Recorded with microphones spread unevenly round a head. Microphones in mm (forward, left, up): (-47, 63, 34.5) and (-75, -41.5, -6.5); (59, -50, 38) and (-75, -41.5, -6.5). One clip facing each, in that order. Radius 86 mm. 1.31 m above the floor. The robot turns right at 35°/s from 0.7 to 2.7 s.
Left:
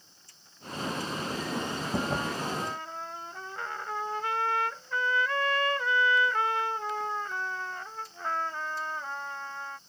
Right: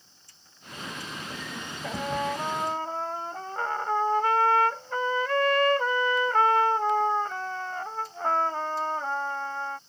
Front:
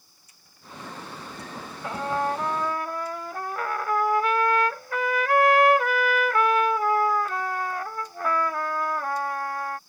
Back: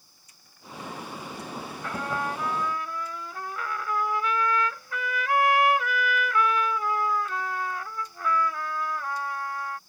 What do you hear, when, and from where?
1.8 s a trumpet: 65° right; by 9.8 s 35° right